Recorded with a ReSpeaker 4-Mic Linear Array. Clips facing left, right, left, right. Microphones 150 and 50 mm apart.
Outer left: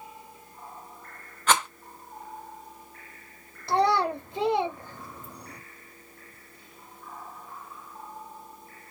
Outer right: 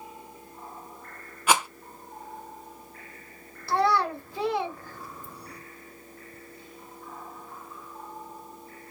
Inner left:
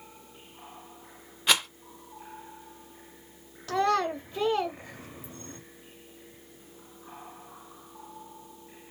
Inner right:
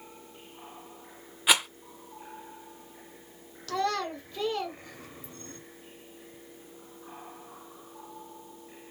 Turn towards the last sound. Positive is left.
turn(degrees=20)  # may be behind; listen again after turning